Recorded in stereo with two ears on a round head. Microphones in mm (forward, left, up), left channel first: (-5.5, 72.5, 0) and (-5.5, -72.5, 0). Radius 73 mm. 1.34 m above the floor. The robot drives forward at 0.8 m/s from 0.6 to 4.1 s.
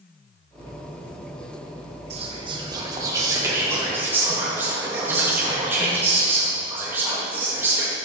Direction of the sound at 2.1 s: 40° right (ahead or behind).